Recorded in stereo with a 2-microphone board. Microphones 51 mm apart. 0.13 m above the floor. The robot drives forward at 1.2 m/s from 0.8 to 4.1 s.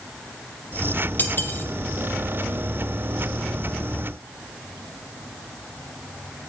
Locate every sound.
1.2 s cutlery clinking: 40° left (ahead or behind), 2.5 m; by 1.7 s 50° left (ahead or behind), 2 m